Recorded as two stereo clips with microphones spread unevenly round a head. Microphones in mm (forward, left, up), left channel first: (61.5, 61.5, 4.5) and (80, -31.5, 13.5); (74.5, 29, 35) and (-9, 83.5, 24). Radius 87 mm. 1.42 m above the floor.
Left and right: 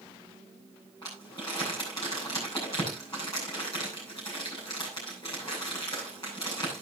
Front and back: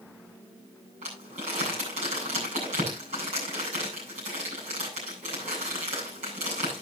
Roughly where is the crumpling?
Behind.